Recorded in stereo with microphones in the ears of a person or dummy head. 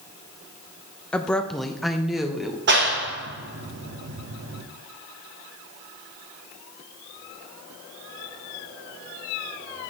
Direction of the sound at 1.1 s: 10° left (ahead or behind).